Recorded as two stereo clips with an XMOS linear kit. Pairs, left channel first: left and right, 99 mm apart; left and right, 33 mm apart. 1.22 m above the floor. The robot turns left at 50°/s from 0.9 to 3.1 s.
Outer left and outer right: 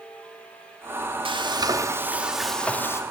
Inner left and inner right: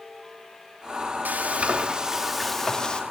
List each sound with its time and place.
1.2 s frying: 120° right, 2 m; by 3.0 s 150° left, 2 m